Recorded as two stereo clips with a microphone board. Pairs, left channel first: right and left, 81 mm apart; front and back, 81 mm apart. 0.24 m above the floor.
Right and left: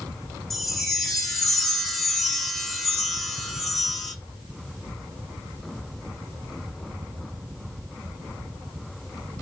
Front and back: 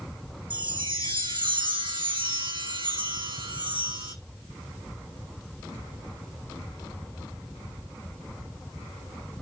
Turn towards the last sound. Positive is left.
turn(degrees=-175)